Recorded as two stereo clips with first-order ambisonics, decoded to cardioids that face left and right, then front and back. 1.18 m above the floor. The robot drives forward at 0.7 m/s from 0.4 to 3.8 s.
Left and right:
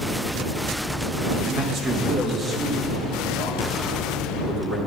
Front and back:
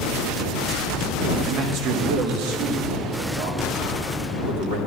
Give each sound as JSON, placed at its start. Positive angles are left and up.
{"t": 1.4, "sound": "a man speaking", "azimuth_deg": -155, "distance_m": 1.2}